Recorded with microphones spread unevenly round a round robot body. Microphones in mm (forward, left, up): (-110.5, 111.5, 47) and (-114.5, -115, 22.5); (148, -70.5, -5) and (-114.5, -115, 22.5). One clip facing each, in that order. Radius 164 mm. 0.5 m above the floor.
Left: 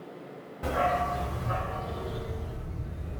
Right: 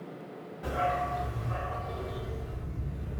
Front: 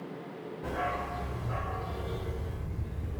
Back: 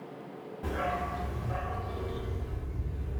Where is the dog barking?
120° left, 1.0 m; by 3.2 s 15° left, 1.5 m.